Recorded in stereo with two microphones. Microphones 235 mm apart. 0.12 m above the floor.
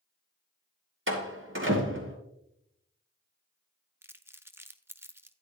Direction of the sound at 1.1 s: 55° right (ahead or behind).